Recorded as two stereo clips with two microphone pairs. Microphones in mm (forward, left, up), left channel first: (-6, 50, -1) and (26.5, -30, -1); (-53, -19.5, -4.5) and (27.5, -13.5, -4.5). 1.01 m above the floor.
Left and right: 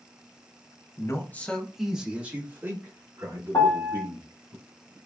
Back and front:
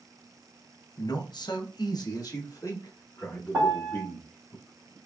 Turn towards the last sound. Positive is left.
turn(degrees=60)